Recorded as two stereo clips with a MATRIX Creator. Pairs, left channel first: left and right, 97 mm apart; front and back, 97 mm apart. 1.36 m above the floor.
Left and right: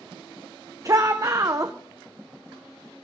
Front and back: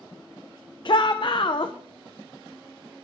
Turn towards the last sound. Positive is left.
turn(degrees=-35)